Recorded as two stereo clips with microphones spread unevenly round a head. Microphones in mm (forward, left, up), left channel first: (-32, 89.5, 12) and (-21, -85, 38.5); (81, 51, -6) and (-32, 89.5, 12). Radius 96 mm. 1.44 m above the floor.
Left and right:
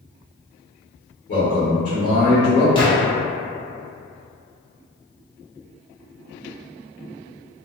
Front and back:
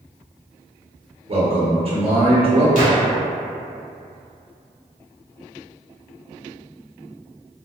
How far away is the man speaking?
About 1.5 m.